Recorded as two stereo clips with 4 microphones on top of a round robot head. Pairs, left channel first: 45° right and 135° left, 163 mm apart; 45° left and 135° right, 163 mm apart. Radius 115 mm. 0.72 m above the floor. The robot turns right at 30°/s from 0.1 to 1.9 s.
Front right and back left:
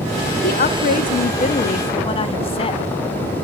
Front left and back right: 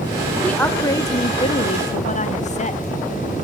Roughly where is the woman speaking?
Ahead right.